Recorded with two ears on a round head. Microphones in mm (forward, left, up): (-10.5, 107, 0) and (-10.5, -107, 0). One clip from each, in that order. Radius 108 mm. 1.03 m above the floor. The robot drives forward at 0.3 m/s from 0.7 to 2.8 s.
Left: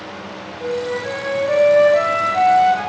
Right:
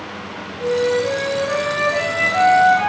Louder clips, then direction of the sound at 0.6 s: Right 5 dB; 30° right (ahead or behind).